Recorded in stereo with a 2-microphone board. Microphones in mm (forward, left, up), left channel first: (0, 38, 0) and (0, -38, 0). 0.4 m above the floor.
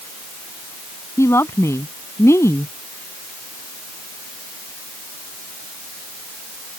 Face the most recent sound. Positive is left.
turn(degrees=40)  # may be behind; listen again after turning